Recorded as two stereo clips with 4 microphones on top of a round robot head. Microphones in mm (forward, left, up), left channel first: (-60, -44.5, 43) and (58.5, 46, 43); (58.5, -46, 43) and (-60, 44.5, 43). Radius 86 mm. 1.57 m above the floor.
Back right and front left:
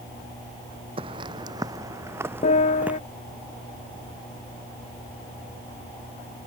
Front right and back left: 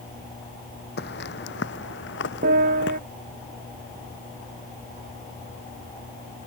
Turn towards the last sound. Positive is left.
turn(degrees=170)